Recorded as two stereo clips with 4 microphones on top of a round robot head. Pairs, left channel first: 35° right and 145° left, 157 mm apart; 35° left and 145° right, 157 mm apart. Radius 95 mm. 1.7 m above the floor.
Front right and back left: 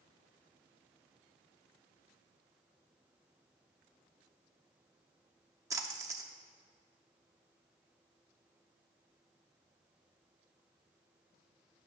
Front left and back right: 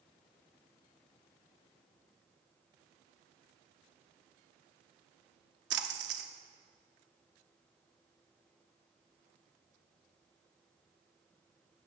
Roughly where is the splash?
Behind right.